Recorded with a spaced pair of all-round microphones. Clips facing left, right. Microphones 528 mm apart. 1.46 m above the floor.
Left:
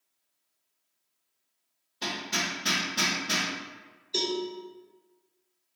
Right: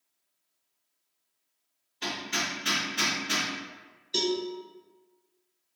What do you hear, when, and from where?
2.0 s hammering: 60° left (ahead or behind), 1.0 m
4.1 s a cowbell: 40° right (ahead or behind), 0.6 m